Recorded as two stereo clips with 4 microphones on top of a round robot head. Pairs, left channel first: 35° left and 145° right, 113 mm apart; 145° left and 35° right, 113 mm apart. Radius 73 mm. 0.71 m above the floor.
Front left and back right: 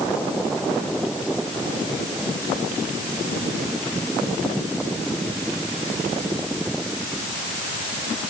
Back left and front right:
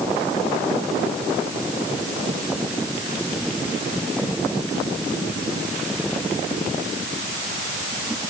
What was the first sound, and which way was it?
Only background noise.